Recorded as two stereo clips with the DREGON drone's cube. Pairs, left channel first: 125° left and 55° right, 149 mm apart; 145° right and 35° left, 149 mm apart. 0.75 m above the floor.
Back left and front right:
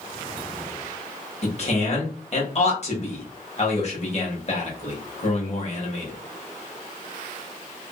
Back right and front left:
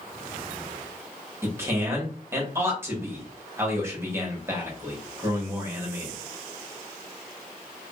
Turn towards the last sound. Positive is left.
turn(degrees=105)